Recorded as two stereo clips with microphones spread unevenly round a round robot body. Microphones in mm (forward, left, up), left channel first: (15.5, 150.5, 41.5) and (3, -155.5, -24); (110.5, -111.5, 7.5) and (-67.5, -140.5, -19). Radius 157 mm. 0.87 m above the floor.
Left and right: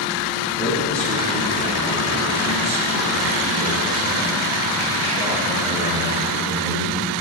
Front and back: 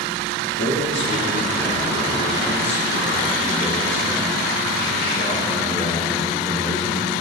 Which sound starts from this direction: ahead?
A man speaking, at 0.6 s.